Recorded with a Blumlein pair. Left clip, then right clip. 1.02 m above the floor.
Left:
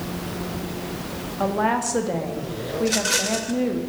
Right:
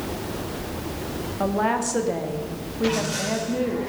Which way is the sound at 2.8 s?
55° left.